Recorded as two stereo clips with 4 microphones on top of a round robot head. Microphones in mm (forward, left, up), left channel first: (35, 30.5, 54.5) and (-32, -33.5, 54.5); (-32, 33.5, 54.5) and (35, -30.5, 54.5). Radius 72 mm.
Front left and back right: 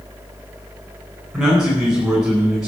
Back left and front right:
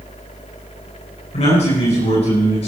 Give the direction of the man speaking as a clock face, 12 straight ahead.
7 o'clock.